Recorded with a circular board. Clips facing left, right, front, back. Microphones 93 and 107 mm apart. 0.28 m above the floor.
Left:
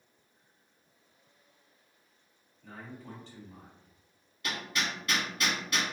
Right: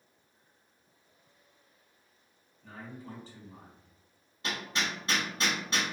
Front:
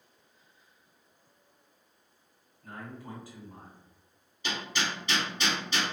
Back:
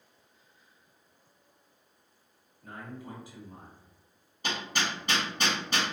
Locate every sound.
2.6 s a man speaking: 170° right, 1.5 m
4.4 s hammering: 145° right, 0.9 m